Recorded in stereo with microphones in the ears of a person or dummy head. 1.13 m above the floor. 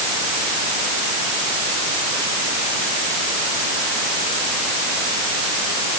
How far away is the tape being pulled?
I don't hear tape being pulled.